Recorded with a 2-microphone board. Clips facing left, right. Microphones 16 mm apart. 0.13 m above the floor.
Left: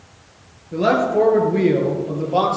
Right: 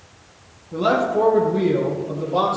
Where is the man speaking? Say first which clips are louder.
Left 2 dB; 45° left (ahead or behind), 3 m; by 2.6 s 60° left (ahead or behind), 3.5 m.